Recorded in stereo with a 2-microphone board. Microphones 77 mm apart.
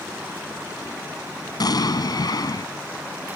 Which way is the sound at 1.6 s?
60° left (ahead or behind).